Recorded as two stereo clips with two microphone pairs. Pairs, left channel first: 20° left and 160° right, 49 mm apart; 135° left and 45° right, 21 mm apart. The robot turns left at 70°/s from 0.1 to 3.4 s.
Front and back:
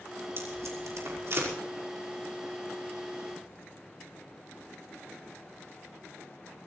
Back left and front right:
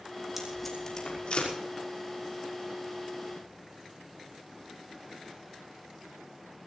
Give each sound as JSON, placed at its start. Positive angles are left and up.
{"t": 0.4, "sound": "tape being pulled", "azimuth_deg": -120, "distance_m": 5.5}